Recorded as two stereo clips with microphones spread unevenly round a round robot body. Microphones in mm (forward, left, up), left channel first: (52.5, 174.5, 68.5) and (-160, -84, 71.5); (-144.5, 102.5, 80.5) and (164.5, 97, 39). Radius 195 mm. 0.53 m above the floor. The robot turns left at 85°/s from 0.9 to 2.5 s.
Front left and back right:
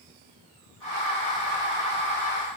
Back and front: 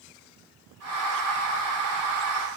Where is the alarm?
No alarm in this recording.